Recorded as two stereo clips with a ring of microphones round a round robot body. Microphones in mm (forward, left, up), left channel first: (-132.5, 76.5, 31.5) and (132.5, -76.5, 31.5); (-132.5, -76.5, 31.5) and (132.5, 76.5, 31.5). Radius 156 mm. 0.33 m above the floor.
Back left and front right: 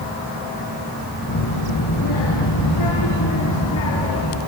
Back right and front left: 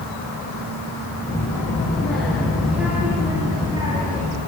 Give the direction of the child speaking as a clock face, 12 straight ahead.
8 o'clock.